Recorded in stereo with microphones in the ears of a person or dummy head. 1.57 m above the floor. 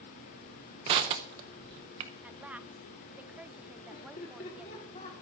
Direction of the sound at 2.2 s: 5° right (ahead or behind).